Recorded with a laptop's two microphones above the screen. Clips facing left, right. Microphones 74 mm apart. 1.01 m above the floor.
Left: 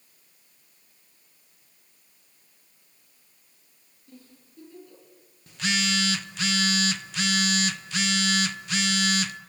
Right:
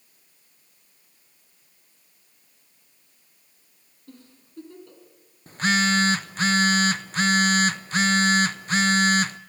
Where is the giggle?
70° right (ahead or behind), 5.5 m.